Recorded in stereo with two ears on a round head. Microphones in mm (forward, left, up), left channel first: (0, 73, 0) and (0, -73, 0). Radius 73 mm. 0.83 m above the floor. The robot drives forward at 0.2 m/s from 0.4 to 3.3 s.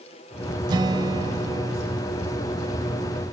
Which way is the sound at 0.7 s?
25° right (ahead or behind).